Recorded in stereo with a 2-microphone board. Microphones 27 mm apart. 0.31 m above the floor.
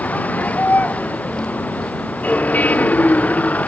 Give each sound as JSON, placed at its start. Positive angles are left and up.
{"t": 0.0, "sound": "a vehicle", "side_deg": 85}